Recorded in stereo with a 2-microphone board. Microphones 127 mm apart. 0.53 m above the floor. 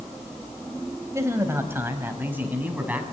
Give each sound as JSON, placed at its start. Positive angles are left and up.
{"t": 1.1, "sound": "a man speaking", "side_deg": -25, "distance_m": 3.0}